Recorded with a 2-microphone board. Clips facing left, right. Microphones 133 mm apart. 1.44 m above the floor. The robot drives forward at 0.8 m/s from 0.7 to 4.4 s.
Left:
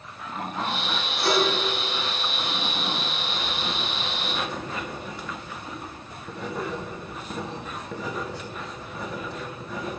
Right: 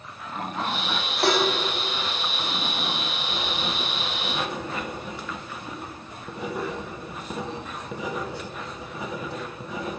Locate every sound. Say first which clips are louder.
1.2 s dishes clattering: right 1 dB; 75° right (ahead or behind), 2 m
3.3 s writing: right 3 dB; 20° right (ahead or behind), 0.6 m; by 10.0 s 10° right (ahead or behind), 1.2 m